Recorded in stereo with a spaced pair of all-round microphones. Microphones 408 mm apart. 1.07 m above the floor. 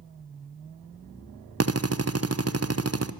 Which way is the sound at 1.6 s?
35° right (ahead or behind).